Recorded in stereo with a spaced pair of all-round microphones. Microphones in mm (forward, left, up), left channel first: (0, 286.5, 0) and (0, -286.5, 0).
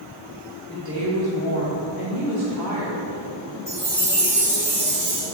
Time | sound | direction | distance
0.7 | a woman speaking | 15° right (ahead or behind) | 1.5 m
3.7 | a chime | 50° right (ahead or behind) | 1.9 m